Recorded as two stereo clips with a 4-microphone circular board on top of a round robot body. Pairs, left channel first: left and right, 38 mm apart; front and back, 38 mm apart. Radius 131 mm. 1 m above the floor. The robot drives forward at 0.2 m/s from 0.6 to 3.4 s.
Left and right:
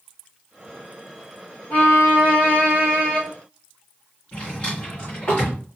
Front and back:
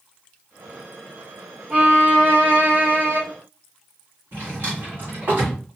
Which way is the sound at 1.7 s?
135° left.